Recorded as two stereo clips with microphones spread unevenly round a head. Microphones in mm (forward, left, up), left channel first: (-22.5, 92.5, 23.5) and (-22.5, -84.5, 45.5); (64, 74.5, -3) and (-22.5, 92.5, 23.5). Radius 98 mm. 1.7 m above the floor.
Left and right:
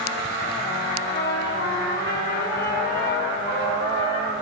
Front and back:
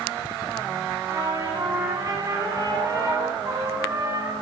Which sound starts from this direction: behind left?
A trumpet, at 1.1 s.